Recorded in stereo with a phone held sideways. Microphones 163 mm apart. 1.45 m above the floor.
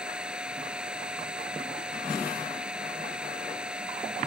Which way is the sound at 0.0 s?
5° right (ahead or behind).